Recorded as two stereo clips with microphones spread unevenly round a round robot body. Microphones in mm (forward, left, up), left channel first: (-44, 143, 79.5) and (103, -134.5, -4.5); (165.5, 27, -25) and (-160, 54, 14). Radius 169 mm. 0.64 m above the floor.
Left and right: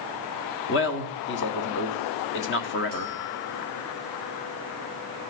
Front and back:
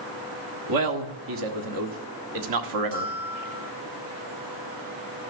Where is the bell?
Straight behind, 6.5 m.